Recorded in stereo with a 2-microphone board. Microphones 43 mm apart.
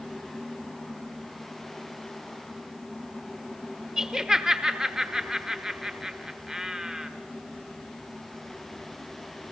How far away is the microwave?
I don't hear a microwave.